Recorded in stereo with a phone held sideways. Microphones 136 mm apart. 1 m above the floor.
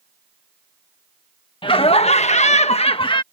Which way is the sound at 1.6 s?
40° left (ahead or behind).